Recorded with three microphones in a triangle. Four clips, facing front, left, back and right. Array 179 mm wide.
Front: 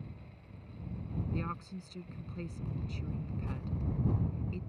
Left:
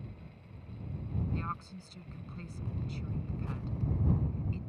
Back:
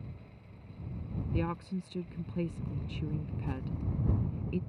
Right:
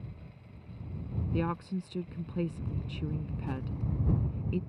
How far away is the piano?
I don't hear a piano.